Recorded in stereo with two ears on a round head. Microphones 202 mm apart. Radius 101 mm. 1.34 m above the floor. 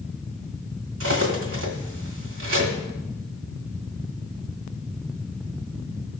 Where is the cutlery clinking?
60° right (ahead or behind), 1.8 m.